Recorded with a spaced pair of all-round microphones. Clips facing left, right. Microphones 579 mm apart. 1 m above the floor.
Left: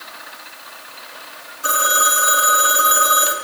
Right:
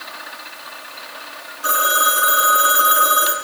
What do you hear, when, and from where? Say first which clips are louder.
1.6 s a phone ringing: even; 50° left (ahead or behind), 1.7 m